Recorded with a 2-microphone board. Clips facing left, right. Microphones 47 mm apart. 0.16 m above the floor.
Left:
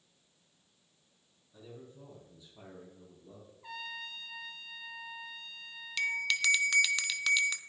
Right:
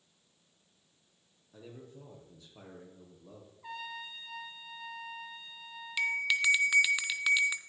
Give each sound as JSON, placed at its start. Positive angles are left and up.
{"t": 1.5, "sound": "a man speaking", "side_deg": -70, "distance_m": 4.5}
{"t": 3.6, "sound": "a trumpet", "side_deg": -10, "distance_m": 1.7}
{"t": 6.0, "sound": "a bell", "side_deg": -10, "distance_m": 0.7}